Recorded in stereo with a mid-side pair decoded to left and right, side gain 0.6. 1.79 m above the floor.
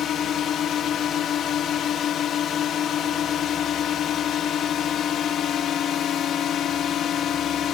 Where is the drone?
50° left.